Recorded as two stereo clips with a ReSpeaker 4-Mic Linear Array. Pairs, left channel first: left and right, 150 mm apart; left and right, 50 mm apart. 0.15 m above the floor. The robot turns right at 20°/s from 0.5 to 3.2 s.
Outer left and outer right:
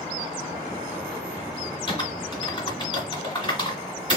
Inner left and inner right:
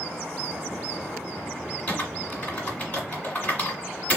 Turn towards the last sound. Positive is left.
turn(degrees=30)  # may be behind; listen again after turning